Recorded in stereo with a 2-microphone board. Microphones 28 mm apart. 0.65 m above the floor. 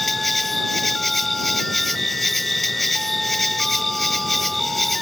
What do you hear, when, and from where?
0.0 s an insect: centre (ahead or behind)